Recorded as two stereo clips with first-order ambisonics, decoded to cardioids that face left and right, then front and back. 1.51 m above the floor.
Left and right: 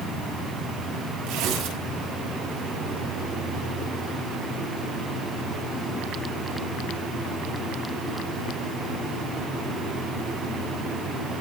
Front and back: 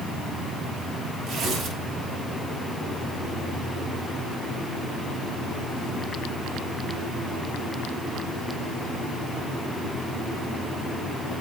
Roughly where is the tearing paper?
Behind right.